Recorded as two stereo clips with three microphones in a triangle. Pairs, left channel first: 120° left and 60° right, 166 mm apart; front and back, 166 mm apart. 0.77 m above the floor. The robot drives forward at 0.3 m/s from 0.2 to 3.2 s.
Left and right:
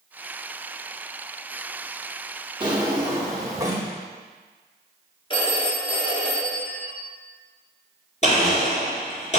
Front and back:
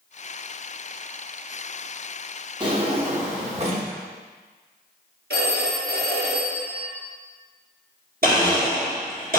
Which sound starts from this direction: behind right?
A drawer, at 2.6 s.